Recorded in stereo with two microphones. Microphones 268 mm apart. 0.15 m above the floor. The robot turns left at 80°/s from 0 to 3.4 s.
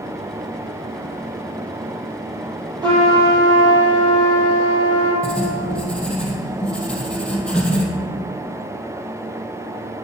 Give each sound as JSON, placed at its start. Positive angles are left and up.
{"t": 2.8, "sound": "a trumpet", "azimuth_deg": -15, "distance_m": 3.5}
{"t": 5.2, "sound": "writing", "side_deg": 5, "distance_m": 2.0}